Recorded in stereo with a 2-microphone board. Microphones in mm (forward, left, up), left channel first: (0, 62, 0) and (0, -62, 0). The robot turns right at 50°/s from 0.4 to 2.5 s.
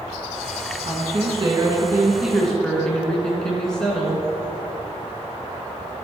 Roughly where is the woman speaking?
Right.